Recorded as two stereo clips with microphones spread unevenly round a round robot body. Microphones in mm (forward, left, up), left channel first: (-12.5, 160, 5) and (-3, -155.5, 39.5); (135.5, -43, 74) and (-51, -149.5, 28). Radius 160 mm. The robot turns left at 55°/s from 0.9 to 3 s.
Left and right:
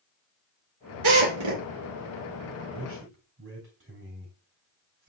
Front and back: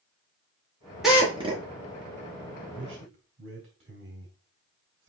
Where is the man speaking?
125° right, 3.5 m; by 5.1 s 145° right, 3.5 m.